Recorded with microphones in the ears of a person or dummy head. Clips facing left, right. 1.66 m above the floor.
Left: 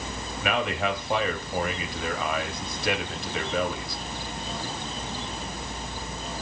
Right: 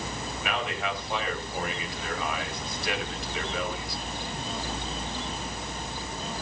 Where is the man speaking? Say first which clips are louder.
Left 6 dB; 55° left (ahead or behind), 3 m.